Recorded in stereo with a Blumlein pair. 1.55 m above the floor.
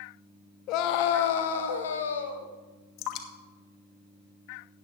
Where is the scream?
40° left, 1.0 m; by 2.5 s 70° left, 1.9 m.